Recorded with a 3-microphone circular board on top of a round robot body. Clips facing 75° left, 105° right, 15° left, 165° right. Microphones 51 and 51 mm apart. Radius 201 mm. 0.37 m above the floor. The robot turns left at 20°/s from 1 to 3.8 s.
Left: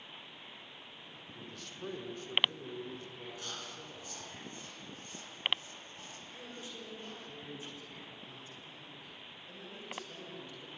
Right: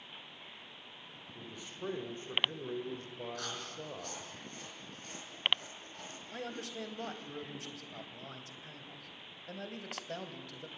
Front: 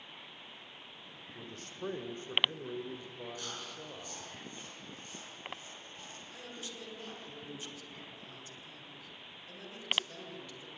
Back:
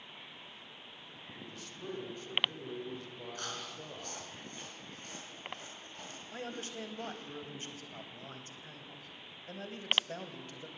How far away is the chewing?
About 6.5 m.